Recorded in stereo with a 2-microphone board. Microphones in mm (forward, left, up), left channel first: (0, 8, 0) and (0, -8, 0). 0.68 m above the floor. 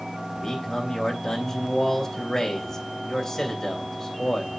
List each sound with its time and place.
0.3 s a man speaking: 25° left (ahead or behind), 3 m